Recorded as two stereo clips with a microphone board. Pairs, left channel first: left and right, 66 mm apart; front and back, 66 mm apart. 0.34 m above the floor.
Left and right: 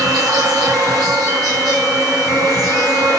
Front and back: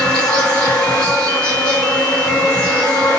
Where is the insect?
70° right, 9.5 m.